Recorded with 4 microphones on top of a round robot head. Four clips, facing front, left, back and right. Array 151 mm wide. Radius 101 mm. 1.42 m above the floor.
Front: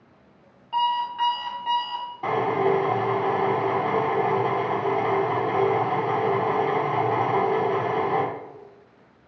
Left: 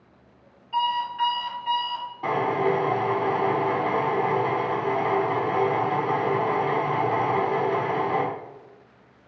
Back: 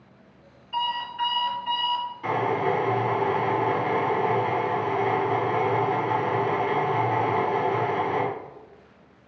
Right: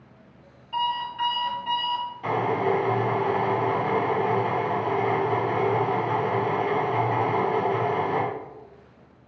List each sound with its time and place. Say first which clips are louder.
0.7 s an alarm clock: left 2 dB, front 5 dB; 5° right, 1.3 m
2.2 s a drill: left 1 dB, front 3 dB; 45° left, 1.5 m